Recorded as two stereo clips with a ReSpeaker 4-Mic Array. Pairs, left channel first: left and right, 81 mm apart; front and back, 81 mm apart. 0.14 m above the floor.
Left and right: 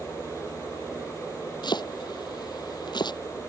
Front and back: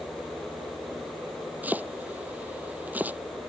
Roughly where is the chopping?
Behind left.